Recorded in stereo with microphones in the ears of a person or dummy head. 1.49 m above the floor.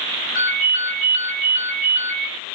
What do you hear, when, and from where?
0.3 s a ringtone: 50° left (ahead or behind), 0.8 m